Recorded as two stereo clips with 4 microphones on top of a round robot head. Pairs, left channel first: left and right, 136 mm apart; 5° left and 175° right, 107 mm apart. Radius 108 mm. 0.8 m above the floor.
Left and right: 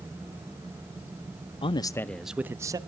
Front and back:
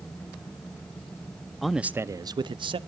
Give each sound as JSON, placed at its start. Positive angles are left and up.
{"t": 1.6, "sound": "a man speaking", "azimuth_deg": 95, "distance_m": 0.7}